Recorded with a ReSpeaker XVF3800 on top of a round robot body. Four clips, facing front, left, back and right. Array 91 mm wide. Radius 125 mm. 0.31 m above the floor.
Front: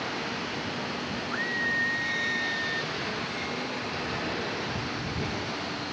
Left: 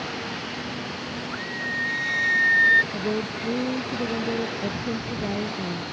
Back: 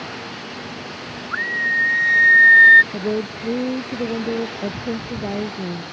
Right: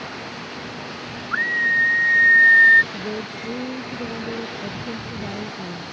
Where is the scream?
125° right; by 2.8 s 160° right.